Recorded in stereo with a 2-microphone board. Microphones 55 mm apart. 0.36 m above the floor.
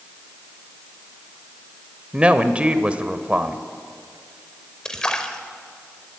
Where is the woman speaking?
20° right (ahead or behind), 1.1 m.